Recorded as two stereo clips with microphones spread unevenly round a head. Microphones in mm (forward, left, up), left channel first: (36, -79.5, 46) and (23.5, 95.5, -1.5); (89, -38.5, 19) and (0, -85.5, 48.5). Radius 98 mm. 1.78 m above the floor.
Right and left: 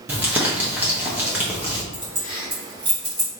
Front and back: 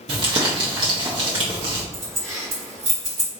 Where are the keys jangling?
165° left, 1.2 m.